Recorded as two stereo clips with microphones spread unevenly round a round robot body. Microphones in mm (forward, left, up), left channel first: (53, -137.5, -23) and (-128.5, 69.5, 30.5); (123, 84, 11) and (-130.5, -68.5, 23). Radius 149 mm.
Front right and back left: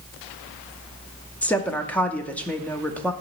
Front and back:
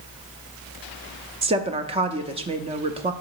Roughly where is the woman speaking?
Right.